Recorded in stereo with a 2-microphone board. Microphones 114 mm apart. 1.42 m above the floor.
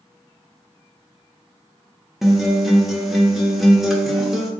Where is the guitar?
Centre (ahead or behind), 0.5 m.